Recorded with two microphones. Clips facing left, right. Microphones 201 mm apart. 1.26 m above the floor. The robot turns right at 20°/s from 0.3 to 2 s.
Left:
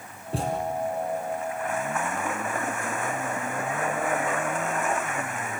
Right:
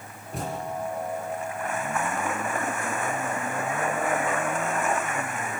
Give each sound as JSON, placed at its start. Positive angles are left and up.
{"t": 0.3, "sound": "a thud", "side_deg": 30, "distance_m": 6.5}